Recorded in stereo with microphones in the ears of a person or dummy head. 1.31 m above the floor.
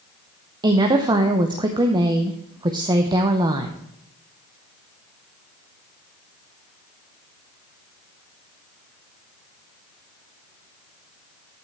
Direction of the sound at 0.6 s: 20° right (ahead or behind).